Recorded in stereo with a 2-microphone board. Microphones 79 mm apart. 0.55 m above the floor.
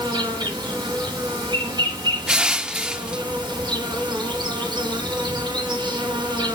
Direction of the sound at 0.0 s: 75° right (ahead or behind).